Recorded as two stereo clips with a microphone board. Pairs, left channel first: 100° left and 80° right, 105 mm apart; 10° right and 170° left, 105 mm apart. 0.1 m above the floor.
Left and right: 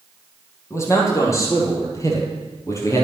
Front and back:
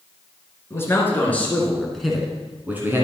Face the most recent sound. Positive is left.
turn(degrees=130)